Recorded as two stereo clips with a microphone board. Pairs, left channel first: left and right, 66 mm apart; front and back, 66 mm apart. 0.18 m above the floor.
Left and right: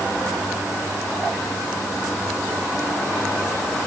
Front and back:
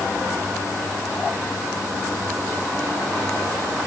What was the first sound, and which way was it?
Only background noise.